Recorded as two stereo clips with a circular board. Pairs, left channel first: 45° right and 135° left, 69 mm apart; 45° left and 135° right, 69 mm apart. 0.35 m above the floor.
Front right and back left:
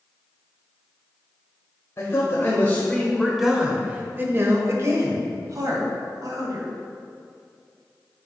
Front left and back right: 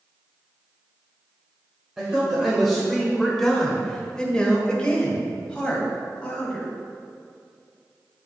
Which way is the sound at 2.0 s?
55° right.